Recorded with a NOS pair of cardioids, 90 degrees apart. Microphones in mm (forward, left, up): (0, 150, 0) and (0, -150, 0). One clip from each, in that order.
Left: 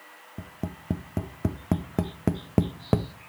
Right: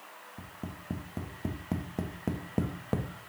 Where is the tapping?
40° left, 0.6 m.